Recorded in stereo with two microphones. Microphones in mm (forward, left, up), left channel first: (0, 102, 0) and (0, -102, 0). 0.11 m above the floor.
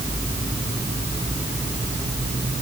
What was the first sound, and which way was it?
Only background noise.